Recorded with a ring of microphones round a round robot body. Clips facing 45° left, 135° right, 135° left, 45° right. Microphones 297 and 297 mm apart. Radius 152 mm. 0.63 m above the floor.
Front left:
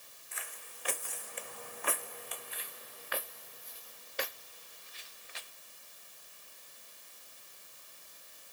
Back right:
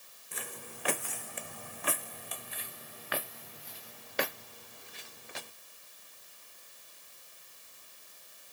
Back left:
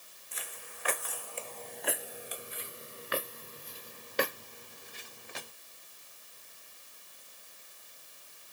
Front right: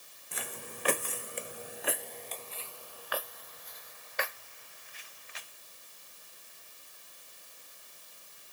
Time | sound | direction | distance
0.3 | footsteps | 80° right | ?